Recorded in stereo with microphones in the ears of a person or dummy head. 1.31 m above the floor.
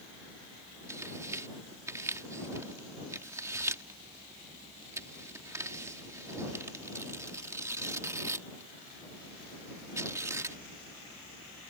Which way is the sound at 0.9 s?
15° right (ahead or behind).